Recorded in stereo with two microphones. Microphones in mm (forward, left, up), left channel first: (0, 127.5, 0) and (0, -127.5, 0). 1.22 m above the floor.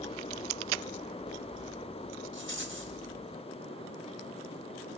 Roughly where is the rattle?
Right.